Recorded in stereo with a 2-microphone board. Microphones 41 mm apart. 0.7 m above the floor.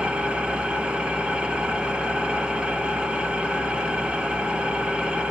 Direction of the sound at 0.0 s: 25° right (ahead or behind).